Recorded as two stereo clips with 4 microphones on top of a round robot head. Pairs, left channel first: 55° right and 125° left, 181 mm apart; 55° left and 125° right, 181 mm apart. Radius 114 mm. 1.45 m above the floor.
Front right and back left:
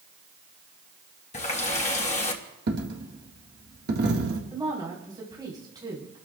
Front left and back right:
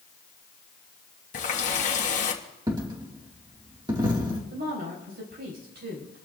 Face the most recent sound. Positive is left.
turn(degrees=-165)